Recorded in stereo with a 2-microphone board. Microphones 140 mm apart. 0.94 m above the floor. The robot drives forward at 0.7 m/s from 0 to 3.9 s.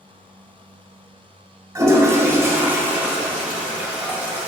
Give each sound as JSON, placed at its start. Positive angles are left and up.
{"t": 1.8, "sound": "a toilet flushing", "side_deg": -25, "distance_m": 0.9}